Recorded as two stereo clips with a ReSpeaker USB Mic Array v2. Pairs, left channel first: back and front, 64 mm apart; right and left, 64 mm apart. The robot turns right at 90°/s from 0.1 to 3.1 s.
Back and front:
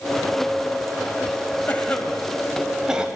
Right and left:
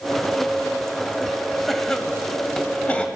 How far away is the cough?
About 1.2 m.